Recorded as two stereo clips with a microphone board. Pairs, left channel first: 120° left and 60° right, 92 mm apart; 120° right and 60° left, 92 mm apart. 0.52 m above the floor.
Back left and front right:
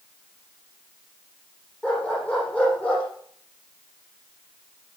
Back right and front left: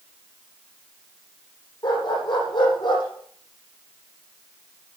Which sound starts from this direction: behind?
A dog barking, at 1.8 s.